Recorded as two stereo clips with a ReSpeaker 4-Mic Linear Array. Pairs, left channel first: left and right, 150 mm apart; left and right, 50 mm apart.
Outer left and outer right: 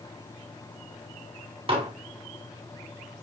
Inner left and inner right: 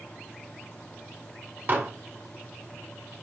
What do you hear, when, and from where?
1.7 s dishes clattering: 40° right (ahead or behind), 1.2 m